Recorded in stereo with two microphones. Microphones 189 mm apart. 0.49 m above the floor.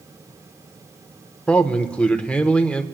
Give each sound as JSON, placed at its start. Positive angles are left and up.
{"t": 1.5, "sound": "a man speaking", "side_deg": 5, "distance_m": 0.9}